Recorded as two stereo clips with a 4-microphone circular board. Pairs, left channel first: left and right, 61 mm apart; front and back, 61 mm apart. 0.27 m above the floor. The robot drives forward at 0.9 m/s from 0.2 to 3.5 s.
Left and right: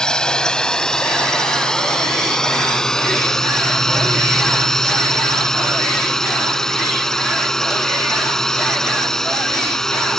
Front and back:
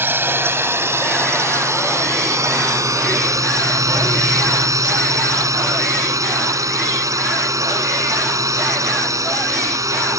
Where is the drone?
160° left; by 10.2 s 175° left.